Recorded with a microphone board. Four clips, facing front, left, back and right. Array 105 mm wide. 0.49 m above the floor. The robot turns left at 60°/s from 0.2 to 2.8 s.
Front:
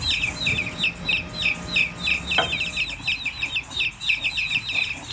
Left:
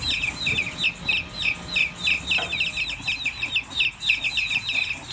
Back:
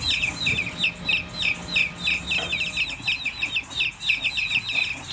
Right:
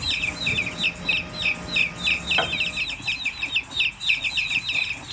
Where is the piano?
30° right, 0.8 m; by 2.6 s 45° right, 0.8 m.